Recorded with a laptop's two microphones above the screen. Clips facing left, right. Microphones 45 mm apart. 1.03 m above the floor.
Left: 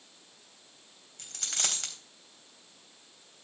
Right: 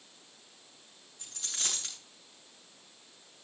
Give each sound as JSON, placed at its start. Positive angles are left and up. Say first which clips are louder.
{"t": 1.2, "sound": "a dropped coin", "louder": "left 4 dB", "side_deg": 85, "distance_m": 3.0}